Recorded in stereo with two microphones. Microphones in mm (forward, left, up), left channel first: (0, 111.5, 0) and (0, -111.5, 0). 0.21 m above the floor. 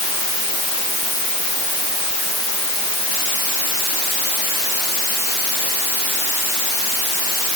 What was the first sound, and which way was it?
Only background noise.